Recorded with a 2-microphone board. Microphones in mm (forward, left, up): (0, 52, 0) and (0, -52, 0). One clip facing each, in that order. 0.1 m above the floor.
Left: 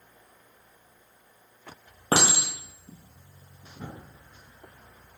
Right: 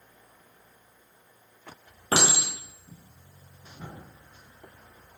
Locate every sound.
2.1 s a clink: 40° left (ahead or behind), 1.4 m